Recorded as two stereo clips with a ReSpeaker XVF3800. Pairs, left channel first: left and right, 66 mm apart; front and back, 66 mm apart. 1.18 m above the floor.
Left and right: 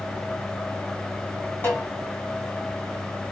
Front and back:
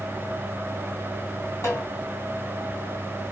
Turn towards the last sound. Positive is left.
turn(degrees=30)